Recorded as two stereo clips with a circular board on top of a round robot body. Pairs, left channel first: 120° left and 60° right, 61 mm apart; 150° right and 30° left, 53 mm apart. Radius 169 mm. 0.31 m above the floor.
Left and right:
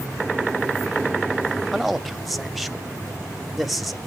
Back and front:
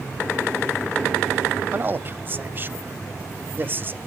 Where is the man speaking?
25° left, 1.1 m.